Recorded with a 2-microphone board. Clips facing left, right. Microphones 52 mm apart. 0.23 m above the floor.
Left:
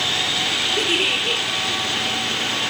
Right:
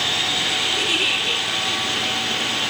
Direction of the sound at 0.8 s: 35° left (ahead or behind).